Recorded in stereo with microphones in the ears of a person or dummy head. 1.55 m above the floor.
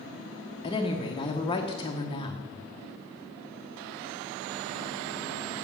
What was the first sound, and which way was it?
A woman speaking, 25° left (ahead or behind).